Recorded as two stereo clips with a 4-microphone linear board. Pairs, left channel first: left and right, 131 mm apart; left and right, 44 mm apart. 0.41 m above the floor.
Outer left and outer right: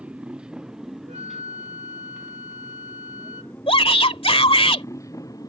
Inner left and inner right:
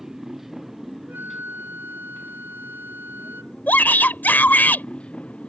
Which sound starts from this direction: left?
A shout, at 3.7 s.